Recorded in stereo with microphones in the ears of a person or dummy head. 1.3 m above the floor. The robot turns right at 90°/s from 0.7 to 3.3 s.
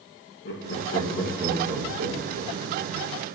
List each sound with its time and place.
0.5 s laughter: 60° left (ahead or behind), 1.9 m; by 2.9 s 40° right (ahead or behind), 1.9 m